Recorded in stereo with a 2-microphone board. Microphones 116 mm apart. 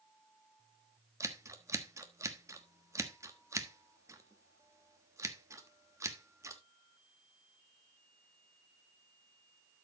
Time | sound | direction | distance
1.2 | scissors | 25° right (ahead or behind) | 1.2 m